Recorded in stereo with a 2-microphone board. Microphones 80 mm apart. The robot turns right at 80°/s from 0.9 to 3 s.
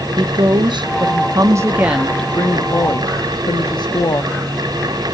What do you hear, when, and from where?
0.2 s a woman speaking: 95° right, 0.9 m; by 4.3 s 75° left, 0.9 m